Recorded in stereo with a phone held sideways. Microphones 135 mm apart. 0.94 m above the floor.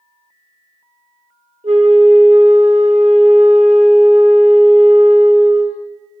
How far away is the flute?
About 1.8 m.